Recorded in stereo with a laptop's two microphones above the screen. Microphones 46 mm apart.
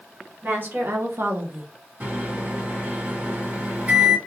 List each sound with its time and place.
0.4 s a woman speaking: 45° right (ahead or behind), 1.2 m; by 1.7 s 30° right (ahead or behind), 0.7 m
2.0 s a microwave: 35° right (ahead or behind), 1.4 m